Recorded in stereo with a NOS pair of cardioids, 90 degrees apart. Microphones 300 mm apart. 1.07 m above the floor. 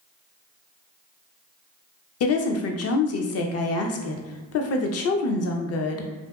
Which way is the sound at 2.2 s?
55° left.